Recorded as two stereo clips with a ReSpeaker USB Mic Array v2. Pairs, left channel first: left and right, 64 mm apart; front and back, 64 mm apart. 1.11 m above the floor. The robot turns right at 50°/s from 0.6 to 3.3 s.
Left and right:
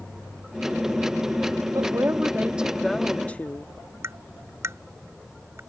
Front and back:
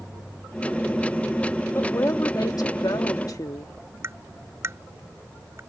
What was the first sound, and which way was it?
A woman speaking, 55° right.